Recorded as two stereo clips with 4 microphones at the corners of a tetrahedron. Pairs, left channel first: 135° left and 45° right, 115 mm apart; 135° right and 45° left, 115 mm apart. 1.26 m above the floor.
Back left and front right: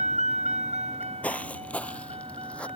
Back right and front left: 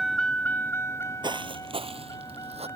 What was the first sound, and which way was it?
A vehicle, 45° right.